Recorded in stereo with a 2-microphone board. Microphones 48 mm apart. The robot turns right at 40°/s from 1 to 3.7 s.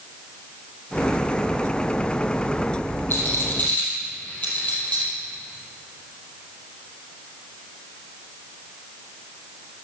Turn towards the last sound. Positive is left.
turn(degrees=30)  # may be behind; listen again after turning